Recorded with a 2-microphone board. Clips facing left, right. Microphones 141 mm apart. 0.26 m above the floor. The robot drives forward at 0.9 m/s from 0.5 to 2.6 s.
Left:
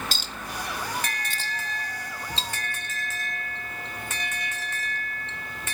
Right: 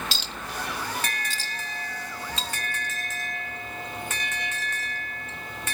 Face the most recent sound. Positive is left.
turn(degrees=25)  # may be behind; listen again after turning